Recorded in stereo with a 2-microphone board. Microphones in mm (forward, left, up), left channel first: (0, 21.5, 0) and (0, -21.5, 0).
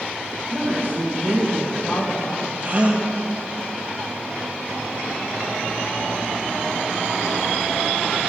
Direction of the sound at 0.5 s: 55° right (ahead or behind).